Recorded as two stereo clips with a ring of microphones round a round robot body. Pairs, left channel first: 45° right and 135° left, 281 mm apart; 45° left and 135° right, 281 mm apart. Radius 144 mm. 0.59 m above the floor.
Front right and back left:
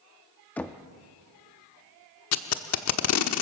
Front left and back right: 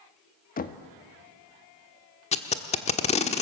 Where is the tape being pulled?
20° right, 1.2 m.